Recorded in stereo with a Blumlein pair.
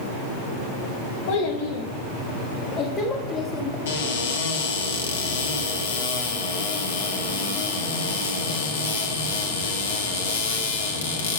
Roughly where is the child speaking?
Ahead left.